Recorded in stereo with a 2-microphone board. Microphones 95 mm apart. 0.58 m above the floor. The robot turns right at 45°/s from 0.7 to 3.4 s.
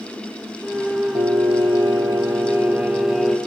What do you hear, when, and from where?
1.1 s singing: 90° right, 3.5 m; by 3.4 s 10° left, 3.5 m